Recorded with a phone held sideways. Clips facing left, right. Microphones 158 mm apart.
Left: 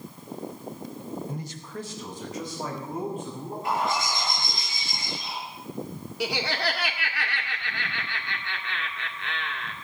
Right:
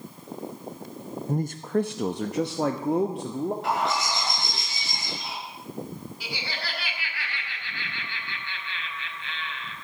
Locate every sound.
1.3 s a man speaking: 45° right (ahead or behind), 0.5 m; by 3.5 s 80° right, 1.7 m
3.6 s a bird: 80° right, 8 m
6.2 s laughter: 80° left, 1.9 m